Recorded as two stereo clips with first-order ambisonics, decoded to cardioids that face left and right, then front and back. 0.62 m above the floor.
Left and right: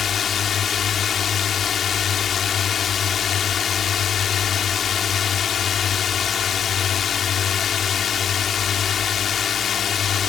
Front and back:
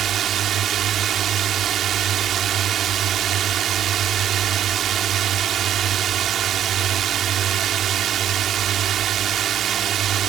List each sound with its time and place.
0.0 s a drone: 140° left